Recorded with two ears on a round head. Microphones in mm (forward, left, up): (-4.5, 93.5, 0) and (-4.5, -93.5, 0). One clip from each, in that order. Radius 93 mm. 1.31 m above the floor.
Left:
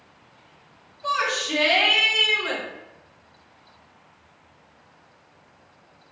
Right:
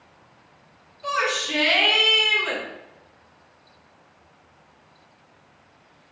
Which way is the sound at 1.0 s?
75° right (ahead or behind).